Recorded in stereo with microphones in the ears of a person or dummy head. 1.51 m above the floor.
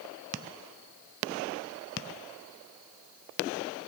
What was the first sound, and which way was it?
Only background noise.